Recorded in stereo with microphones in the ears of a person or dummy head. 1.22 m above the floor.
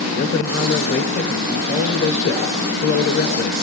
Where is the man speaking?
50° left (ahead or behind), 4 m.